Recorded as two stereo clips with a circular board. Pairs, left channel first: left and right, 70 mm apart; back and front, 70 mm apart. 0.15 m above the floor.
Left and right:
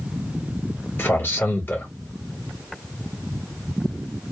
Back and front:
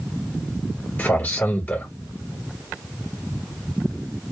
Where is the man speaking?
135° left, 1.2 m.